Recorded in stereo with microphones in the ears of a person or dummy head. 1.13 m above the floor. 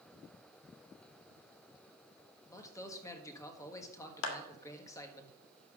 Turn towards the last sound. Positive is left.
turn(degrees=70)  # may be behind; listen again after turning